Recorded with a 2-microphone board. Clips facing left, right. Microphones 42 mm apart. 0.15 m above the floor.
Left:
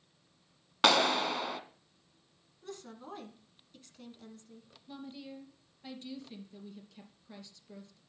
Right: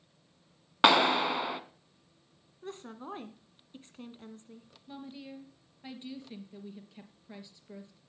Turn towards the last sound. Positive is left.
turn(degrees=-20)  # may be behind; listen again after turning